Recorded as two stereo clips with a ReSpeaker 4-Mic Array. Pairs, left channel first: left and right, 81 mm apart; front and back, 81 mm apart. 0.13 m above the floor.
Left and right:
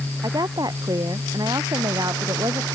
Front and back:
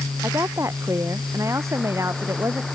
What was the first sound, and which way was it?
A woman speaking, 125° right.